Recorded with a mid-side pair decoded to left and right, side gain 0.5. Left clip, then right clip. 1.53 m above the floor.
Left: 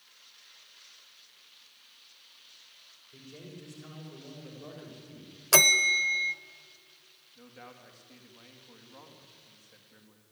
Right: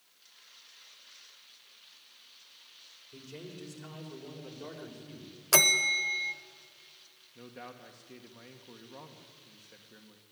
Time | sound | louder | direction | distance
3.1 | a man speaking | right 2 dB | 55° right | 6 m
5.5 | a bell | left 3 dB | 10° left | 0.9 m
7.3 | a man speaking | right 3 dB | 65° right | 2.0 m